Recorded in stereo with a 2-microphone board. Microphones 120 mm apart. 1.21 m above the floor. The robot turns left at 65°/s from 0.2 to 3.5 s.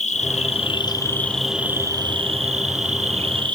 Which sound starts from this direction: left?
An insect, at 0.0 s.